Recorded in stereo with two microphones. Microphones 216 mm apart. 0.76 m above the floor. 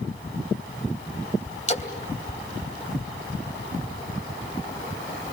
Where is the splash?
35° left (ahead or behind), 3 m.